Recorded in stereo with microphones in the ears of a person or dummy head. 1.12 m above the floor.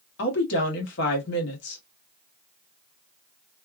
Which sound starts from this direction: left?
A woman speaking, at 0.2 s.